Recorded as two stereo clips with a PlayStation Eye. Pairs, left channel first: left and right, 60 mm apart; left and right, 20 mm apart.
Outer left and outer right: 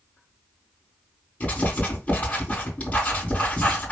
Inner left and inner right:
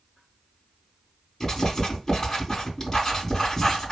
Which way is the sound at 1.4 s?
25° left (ahead or behind).